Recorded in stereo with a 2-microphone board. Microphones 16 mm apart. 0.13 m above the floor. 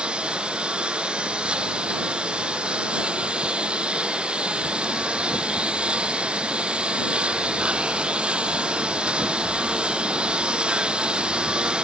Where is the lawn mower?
75° right (ahead or behind); by 11.8 s 65° right (ahead or behind).